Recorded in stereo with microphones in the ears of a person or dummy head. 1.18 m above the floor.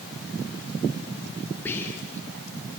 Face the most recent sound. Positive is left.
turn(degrees=15)  # may be behind; listen again after turning